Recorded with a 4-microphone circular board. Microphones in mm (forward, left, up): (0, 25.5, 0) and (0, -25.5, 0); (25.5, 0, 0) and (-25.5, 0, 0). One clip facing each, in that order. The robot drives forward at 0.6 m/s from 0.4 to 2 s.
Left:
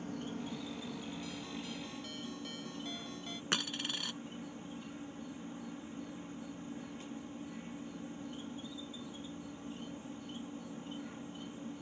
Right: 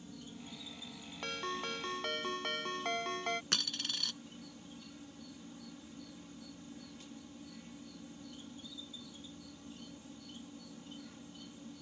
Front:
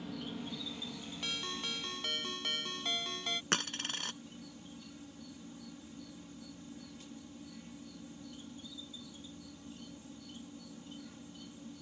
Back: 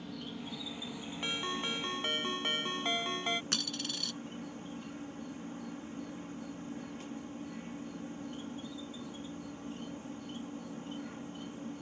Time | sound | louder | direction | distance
0.0 | an insect | left 8 dB, front 1 dB | 90° left | ?
1.2 | a ringtone | right 4 dB, back 4 dB | 115° right | ?
3.5 | a dropped coin | left 2 dB, front 2 dB | 30° left | ?